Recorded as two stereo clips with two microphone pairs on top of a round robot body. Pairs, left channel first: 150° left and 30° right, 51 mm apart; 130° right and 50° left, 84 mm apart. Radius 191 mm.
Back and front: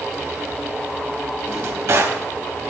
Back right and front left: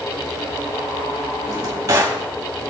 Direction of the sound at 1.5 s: 5° right.